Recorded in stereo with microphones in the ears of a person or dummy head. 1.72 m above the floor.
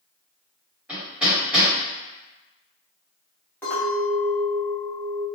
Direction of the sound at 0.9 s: 5° right (ahead or behind).